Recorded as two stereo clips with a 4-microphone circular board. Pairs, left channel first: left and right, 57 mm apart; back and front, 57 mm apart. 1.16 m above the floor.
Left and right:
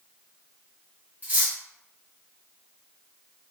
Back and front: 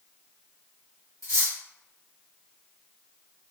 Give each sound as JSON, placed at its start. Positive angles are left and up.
{"t": 1.2, "sound": "cutlery clinking", "azimuth_deg": -155, "distance_m": 1.1}